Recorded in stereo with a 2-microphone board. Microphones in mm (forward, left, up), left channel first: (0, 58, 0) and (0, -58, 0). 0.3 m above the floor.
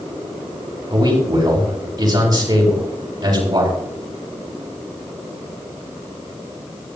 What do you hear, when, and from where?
0.9 s a man speaking: 35° right (ahead or behind), 7 m